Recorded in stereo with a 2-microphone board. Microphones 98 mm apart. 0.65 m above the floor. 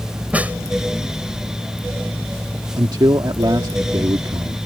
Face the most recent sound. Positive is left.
turn(degrees=-45)  # may be behind; listen again after turning